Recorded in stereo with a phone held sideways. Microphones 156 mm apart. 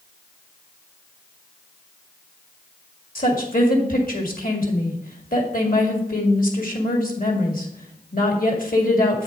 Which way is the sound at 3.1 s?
65° left (ahead or behind).